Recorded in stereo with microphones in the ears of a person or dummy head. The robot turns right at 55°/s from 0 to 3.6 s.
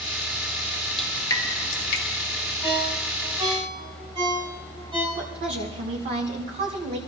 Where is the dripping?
Centre (ahead or behind), 1.5 m; by 2.0 s 55° left (ahead or behind), 1.5 m.